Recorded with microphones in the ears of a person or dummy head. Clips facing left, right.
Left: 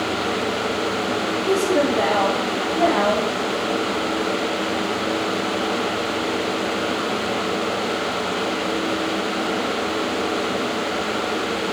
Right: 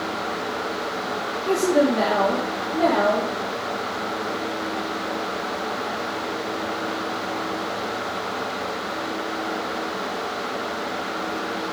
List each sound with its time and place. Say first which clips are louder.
1.5 s a woman speaking: right 1 dB; 15° right (ahead or behind), 0.8 m; by 3.3 s 25° right (ahead or behind), 1.9 m